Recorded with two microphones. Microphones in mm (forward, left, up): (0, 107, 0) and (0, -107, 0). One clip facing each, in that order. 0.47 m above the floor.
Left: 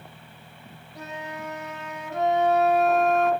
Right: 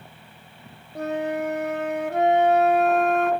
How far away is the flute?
About 1.0 m.